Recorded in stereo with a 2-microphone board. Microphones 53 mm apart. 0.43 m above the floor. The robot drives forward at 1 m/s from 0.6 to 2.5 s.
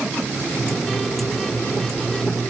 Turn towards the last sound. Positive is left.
No sound to turn to.